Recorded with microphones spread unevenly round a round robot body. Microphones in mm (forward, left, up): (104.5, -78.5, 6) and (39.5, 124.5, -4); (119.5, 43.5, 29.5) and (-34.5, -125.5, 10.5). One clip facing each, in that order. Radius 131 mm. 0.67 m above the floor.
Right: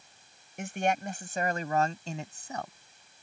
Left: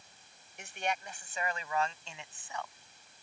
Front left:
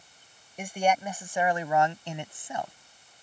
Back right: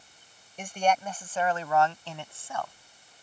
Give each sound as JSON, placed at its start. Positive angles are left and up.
{"t": 0.6, "sound": "a man speaking", "azimuth_deg": -35}